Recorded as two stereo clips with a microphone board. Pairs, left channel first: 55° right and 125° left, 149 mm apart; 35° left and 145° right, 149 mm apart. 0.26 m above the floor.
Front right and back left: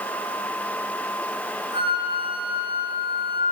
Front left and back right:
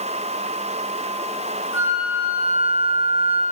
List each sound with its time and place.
1.7 s a flute: 60° right, 6 m